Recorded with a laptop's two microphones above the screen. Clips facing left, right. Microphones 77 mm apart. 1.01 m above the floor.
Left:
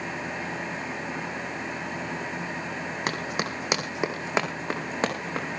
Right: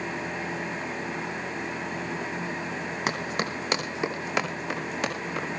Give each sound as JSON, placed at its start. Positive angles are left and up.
{"t": 0.0, "sound": "a fan", "side_deg": 10, "distance_m": 4.0}
{"t": 3.1, "sound": "running footsteps", "side_deg": 0, "distance_m": 3.0}